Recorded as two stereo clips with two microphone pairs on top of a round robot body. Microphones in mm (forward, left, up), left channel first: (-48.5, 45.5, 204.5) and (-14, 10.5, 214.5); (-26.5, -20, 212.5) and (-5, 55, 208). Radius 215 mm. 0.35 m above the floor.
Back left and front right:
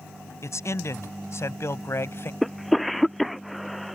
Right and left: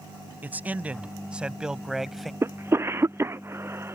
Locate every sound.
0.4 s a man speaking: 140° left; by 2.3 s 160° left
2.4 s a cough: 60° left